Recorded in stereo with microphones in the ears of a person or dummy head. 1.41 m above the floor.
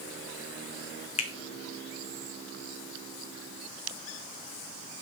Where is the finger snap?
50° left (ahead or behind), 0.7 m.